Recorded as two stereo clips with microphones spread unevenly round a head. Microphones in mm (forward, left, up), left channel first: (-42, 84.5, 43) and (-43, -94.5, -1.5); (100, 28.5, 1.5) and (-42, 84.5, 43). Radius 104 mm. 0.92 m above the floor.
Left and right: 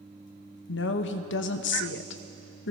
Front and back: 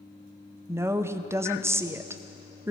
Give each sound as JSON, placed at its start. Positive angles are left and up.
{"t": 0.7, "sound": "a woman speaking", "azimuth_deg": 75, "distance_m": 0.8}